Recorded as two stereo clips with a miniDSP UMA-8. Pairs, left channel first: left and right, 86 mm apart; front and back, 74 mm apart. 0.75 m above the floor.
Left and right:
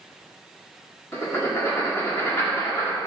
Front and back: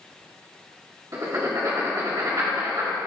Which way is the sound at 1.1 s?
145° left.